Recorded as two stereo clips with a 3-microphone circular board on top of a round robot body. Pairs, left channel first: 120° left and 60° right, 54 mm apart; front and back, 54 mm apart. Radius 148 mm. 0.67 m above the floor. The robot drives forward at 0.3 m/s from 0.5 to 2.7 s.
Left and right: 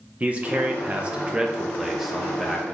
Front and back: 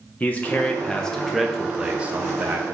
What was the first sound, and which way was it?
A man speaking, 30° right.